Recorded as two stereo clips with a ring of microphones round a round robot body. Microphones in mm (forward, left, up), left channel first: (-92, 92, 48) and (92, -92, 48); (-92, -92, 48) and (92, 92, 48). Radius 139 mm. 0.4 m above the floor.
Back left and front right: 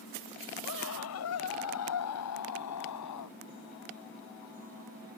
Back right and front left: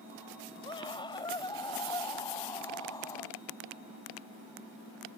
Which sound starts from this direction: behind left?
A scream, at 0.7 s.